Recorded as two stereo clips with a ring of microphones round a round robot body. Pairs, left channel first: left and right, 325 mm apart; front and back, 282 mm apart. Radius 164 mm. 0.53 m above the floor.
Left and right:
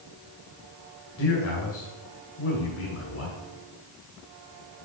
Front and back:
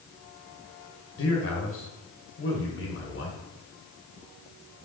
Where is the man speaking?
40° left, 1.9 m.